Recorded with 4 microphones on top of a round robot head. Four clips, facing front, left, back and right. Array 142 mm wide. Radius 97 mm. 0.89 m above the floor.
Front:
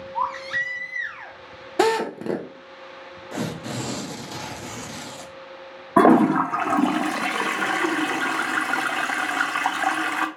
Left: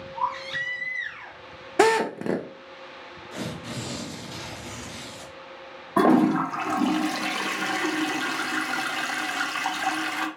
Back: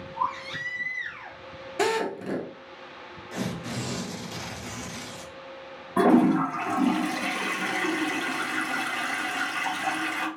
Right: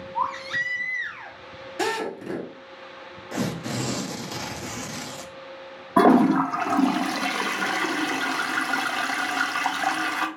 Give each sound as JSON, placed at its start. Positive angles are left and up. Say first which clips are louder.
{"t": 0.1, "sound": "a baby crying", "louder": "right 2 dB, front 3 dB", "azimuth_deg": -35, "distance_m": 1.4}
{"t": 1.8, "sound": "a drill", "louder": "left 7 dB, front 5 dB", "azimuth_deg": 55, "distance_m": 0.8}
{"t": 3.3, "sound": "tearing paper", "louder": "right 6 dB, front 3 dB", "azimuth_deg": -50, "distance_m": 0.5}
{"t": 6.0, "sound": "a toilet flushing", "louder": "right 2 dB, front 4 dB", "azimuth_deg": -20, "distance_m": 0.7}